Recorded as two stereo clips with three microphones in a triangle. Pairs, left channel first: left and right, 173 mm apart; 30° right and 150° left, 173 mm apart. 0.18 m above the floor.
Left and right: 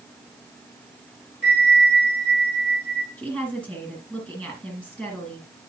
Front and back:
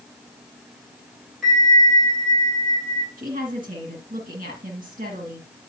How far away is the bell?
About 4 m.